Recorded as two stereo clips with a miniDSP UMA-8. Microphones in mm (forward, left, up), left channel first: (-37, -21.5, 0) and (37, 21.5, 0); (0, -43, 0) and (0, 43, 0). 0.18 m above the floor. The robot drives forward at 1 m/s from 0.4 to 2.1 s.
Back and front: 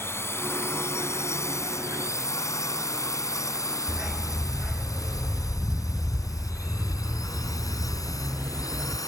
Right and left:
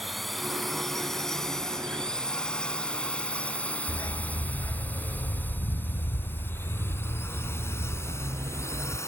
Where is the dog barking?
45° right.